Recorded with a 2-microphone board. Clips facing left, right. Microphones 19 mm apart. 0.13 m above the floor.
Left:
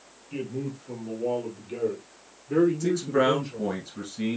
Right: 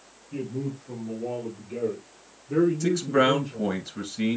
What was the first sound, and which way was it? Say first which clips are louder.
A man speaking: right 1 dB; 60° left (ahead or behind).